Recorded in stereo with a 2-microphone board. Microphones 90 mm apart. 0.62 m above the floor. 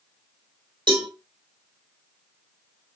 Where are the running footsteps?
I don't hear running footsteps.